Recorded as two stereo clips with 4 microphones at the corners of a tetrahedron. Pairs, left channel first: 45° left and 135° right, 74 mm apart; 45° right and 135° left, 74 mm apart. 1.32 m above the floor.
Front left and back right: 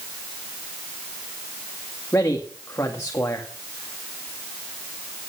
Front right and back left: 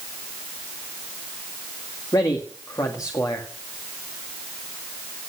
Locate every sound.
2.1 s a man speaking: 5° right, 2 m